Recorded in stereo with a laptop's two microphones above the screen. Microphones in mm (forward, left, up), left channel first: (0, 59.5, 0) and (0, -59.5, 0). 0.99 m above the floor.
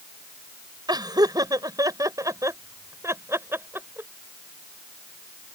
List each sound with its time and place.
0.9 s laughter: 35° right (ahead or behind); by 4.1 s 15° right (ahead or behind)